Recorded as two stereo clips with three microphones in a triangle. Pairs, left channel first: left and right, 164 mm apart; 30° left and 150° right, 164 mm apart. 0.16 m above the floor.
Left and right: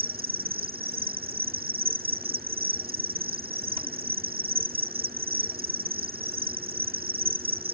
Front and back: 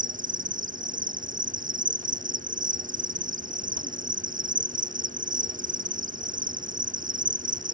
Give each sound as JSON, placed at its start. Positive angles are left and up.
{"t": 0.0, "sound": "an insect", "azimuth_deg": -115}